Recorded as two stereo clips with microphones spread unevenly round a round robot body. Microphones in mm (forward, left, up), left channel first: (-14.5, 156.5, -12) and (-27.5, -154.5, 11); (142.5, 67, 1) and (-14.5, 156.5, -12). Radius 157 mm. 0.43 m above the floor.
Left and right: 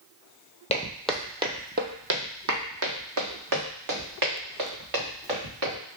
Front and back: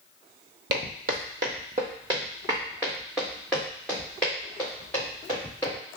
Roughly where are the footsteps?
Behind left.